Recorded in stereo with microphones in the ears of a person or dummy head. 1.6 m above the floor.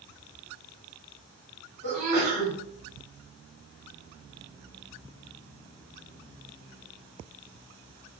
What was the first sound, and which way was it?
A sneeze, 50° right (ahead or behind).